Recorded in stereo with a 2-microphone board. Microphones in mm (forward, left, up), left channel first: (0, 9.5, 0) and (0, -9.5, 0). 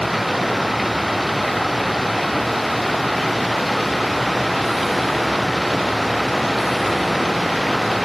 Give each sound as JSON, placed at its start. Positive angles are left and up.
{"t": 0.0, "sound": "running water", "side_deg": -5}